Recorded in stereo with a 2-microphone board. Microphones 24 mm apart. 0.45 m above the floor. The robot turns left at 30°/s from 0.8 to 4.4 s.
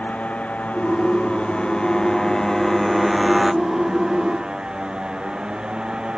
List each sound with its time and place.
0.0 s a motorcycle: 70° left; by 6.2 s 35° right